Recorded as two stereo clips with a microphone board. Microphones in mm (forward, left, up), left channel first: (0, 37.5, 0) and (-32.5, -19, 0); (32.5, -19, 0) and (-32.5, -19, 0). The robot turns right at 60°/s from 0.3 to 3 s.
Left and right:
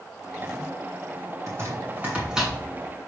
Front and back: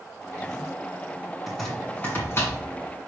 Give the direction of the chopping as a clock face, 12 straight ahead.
3 o'clock.